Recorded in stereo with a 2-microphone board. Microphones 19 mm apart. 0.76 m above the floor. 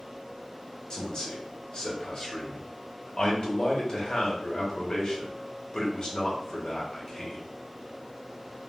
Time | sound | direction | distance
0.9 | a man speaking | 45° left (ahead or behind) | 1.0 m